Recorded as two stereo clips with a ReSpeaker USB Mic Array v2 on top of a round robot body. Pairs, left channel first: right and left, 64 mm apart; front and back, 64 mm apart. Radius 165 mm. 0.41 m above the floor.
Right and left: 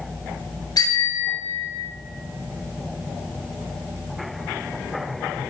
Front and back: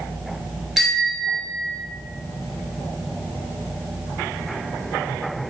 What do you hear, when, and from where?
0.8 s a bicycle bell: 95° right, 7 m; by 1.8 s 100° right, 6 m